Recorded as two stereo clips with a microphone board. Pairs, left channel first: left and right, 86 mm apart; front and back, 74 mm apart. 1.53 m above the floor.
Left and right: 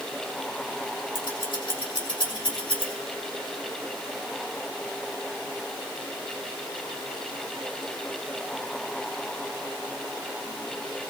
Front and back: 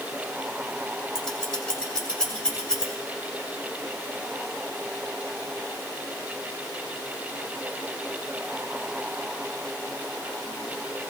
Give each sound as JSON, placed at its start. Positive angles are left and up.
{"t": 1.1, "sound": "scissors", "azimuth_deg": 80, "distance_m": 3.5}